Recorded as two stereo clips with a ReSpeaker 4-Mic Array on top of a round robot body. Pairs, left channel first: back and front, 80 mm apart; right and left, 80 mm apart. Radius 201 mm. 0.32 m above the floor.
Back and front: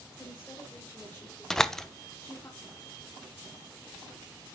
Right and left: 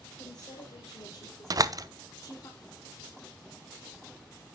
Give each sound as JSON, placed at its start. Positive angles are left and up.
{"t": 0.2, "sound": "a woman speaking", "azimuth_deg": -110, "distance_m": 3.0}
{"t": 1.5, "sound": "a door slam", "azimuth_deg": 100, "distance_m": 0.9}